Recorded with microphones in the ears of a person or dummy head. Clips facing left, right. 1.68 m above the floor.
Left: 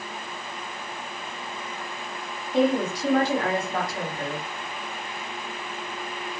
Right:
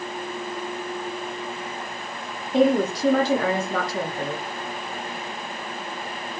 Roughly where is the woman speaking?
Right.